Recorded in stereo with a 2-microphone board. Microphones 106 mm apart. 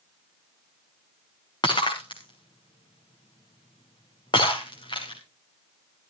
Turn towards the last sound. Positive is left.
turn(degrees=50)  # may be behind; listen again after turning